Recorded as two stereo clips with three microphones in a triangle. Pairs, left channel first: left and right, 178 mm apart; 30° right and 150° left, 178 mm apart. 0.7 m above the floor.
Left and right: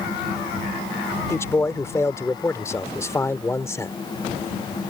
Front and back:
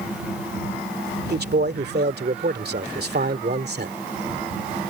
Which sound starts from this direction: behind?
A man speaking, at 1.3 s.